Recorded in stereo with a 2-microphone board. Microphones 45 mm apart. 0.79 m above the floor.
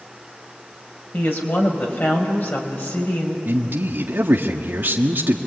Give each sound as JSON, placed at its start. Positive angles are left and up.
{"t": 1.1, "sound": "a woman speaking", "side_deg": 50, "distance_m": 5.0}
{"t": 3.5, "sound": "a man speaking", "side_deg": -55, "distance_m": 1.4}